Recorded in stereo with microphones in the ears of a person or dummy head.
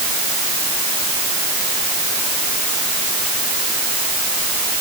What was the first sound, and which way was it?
Only background noise.